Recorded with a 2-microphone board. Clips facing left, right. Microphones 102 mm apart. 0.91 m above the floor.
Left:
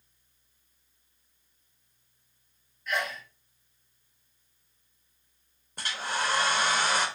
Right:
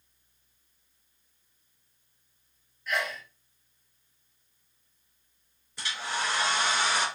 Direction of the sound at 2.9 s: Centre (ahead or behind).